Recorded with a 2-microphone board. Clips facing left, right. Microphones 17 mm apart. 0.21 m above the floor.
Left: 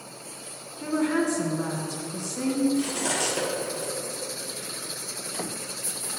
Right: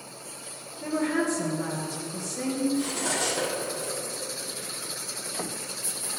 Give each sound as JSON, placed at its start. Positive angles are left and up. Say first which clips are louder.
{"t": 0.8, "sound": "a woman speaking", "louder": "left 2 dB", "side_deg": 40, "distance_m": 2.5}
{"t": 2.8, "sound": "cutlery clinking", "louder": "left 1 dB", "side_deg": 40, "distance_m": 3.5}